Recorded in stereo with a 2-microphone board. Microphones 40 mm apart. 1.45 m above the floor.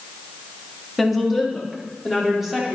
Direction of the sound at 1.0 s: Centre (ahead or behind).